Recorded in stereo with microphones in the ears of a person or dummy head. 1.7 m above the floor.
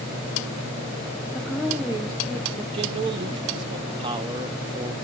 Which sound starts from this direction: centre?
A woman speaking, at 1.4 s.